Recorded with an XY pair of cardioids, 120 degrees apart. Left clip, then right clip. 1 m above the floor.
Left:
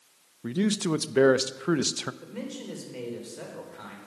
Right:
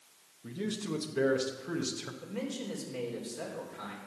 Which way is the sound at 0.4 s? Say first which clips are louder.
Left 9 dB; 65° left.